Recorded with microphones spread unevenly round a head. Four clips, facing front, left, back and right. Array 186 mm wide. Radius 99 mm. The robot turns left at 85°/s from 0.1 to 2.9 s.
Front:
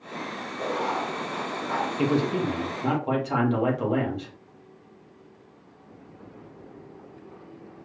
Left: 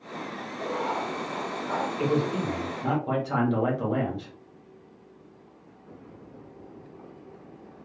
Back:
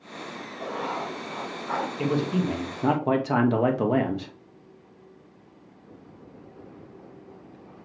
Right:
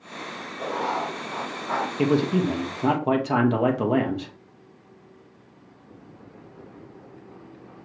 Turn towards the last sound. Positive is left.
turn(degrees=-145)